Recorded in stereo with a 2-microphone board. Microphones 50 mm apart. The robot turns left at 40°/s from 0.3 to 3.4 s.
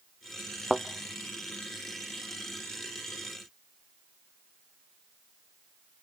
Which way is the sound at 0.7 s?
Centre (ahead or behind).